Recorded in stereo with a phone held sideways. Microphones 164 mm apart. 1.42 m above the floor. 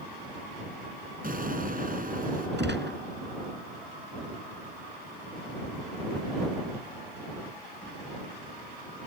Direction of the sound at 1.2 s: 55° right (ahead or behind).